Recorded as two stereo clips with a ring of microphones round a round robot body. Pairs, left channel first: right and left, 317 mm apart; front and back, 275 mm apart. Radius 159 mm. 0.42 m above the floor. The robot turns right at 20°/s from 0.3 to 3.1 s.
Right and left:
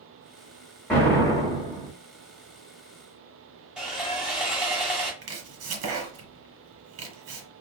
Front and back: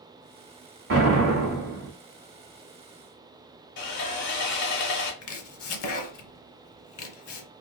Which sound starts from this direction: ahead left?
Chopping, at 5.2 s.